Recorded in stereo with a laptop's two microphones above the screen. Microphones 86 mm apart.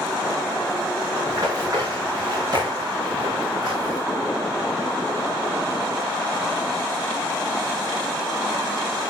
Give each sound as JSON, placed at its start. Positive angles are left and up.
{"t": 1.3, "sound": "running footsteps", "side_deg": -45, "distance_m": 6.5}